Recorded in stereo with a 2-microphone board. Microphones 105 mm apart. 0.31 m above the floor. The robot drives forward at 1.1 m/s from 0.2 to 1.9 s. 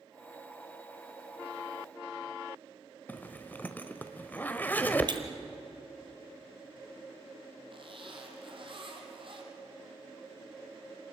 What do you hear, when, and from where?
3.1 s a zipper: 20° left (ahead or behind), 1.1 m
5.1 s breaking glass: 50° right (ahead or behind), 1.6 m
7.7 s a zipper: 55° right (ahead or behind), 3.5 m